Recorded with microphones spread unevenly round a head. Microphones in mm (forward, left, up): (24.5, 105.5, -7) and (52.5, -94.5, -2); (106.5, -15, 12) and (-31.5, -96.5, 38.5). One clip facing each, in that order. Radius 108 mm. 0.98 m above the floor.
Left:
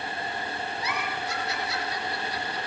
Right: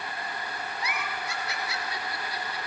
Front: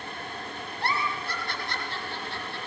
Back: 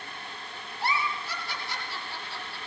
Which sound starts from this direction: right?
A giggle, at 0.8 s.